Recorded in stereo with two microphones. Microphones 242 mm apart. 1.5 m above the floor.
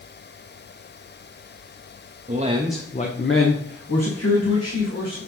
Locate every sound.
2.3 s a man speaking: 35° right (ahead or behind), 0.9 m; by 5.2 s 85° left, 3 m